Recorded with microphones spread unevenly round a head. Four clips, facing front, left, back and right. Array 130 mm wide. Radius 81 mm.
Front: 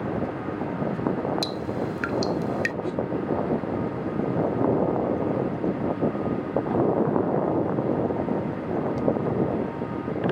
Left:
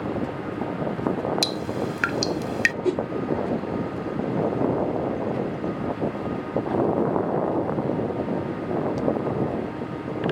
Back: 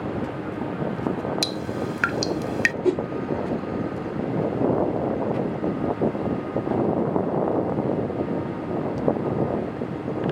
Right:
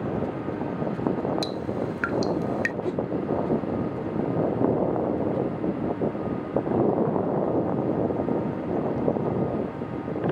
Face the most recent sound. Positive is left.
turn(degrees=145)